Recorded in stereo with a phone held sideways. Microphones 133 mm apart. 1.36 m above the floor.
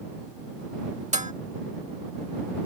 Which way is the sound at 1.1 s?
60° right (ahead or behind).